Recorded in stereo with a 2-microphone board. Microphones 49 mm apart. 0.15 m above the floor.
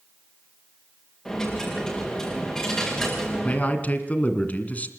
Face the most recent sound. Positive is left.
turn(degrees=30)  # may be behind; listen again after turning